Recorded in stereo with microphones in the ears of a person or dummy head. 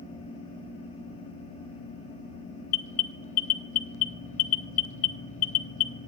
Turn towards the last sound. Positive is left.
turn(degrees=45)  # may be behind; listen again after turning